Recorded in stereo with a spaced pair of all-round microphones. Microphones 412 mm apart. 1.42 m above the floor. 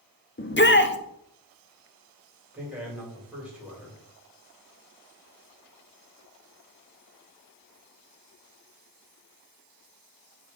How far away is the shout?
About 0.7 m.